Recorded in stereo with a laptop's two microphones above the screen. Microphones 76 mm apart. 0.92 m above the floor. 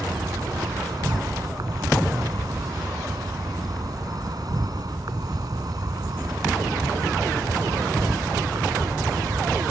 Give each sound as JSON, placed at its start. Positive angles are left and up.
{"t": 0.0, "sound": "an insect", "side_deg": -55}